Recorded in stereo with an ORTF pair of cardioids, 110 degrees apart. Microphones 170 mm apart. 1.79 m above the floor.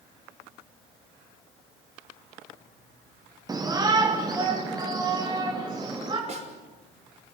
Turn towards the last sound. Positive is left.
turn(degrees=-40)